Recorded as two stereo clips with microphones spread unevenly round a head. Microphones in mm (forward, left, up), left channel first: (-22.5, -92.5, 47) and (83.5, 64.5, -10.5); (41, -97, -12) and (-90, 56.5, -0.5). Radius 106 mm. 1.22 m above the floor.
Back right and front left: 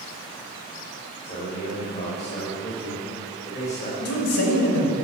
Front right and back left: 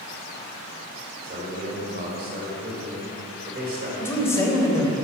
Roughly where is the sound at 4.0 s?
Behind right.